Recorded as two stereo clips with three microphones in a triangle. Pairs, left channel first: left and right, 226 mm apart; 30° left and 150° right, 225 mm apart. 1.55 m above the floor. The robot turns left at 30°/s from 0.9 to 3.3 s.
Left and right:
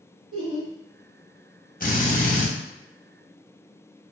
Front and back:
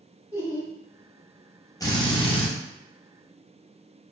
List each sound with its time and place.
0.3 s laughter: 70° right, 1.2 m
1.8 s a drill: 95° left, 0.6 m; by 2.5 s 75° left, 0.6 m